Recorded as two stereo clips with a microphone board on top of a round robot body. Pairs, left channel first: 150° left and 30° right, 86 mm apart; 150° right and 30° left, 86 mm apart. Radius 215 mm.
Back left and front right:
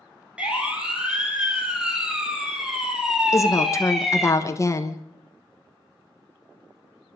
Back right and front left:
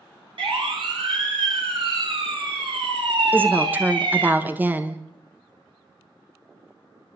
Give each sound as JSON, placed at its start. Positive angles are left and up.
{"t": 0.4, "sound": "a siren", "azimuth_deg": 45, "distance_m": 5.0}
{"t": 3.3, "sound": "a woman speaking", "azimuth_deg": 95, "distance_m": 1.6}